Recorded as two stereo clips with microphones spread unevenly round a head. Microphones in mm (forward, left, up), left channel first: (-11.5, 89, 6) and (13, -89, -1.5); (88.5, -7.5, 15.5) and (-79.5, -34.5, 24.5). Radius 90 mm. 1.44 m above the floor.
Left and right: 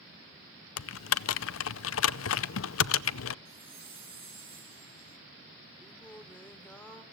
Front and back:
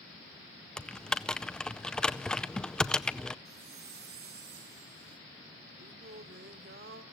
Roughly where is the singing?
Behind.